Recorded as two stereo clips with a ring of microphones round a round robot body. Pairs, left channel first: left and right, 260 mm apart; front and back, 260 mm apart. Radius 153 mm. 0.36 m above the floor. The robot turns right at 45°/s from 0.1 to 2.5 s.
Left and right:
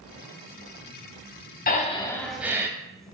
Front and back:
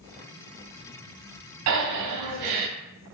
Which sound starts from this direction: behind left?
Breathing, at 1.7 s.